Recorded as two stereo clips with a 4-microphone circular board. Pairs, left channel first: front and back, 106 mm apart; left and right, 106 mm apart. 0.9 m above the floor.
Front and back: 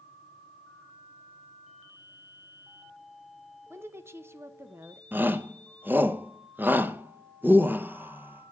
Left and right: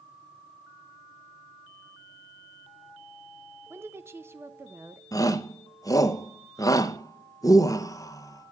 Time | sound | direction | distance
3.7 | a woman speaking | 135° right | 0.6 m
5.1 | a shout | 120° left | 0.8 m